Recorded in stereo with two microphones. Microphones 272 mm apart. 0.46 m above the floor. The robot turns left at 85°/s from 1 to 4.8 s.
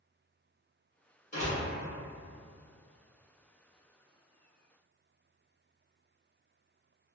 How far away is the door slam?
About 1.5 m.